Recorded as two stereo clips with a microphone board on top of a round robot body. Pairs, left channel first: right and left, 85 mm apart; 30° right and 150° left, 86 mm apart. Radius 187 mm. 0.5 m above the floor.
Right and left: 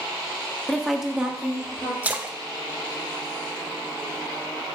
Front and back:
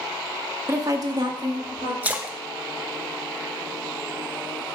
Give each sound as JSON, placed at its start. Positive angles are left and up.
{"t": 0.7, "sound": "a woman speaking", "azimuth_deg": -170, "distance_m": 1.4}
{"t": 2.0, "sound": "a splash", "azimuth_deg": 120, "distance_m": 1.1}